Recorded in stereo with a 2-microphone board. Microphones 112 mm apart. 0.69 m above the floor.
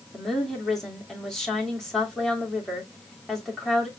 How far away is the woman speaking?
About 2.0 m.